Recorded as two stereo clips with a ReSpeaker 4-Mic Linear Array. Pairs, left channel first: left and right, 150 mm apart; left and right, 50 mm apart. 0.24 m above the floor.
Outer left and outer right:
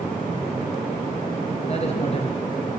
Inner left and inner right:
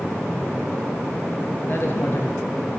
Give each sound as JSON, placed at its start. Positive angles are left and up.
{"t": 1.7, "sound": "a woman speaking", "side_deg": 45, "distance_m": 3.5}